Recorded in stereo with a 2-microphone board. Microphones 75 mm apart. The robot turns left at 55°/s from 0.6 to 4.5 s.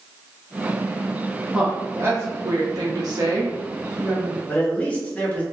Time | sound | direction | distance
1.5 | a woman speaking | 15° right | 1.0 m
4.5 | a man speaking | 20° left (ahead or behind) | 0.9 m